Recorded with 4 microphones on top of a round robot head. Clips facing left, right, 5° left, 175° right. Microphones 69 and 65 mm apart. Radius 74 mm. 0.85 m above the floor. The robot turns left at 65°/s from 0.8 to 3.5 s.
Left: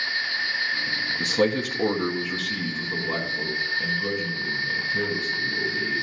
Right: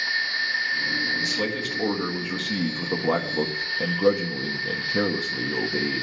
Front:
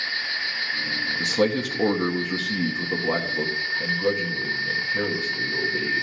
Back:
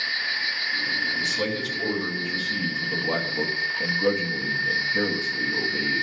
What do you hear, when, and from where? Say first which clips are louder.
1.2 s a man speaking: left 4 dB, front 4 dB; 55° left, 1.2 m; by 6.0 s 95° right, 1.2 m